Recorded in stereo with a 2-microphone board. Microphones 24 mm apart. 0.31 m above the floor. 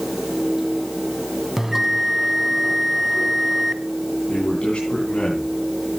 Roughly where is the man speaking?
Left.